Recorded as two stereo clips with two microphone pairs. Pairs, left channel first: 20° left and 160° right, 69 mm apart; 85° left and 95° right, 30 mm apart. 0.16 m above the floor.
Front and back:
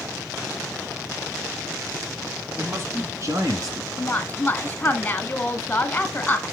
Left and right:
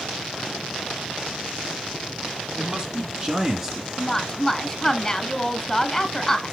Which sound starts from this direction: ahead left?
A woman speaking, at 4.0 s.